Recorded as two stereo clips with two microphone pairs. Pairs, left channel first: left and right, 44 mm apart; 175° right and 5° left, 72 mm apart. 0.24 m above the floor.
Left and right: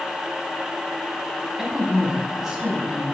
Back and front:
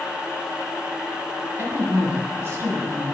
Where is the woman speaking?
20° right, 1.4 m.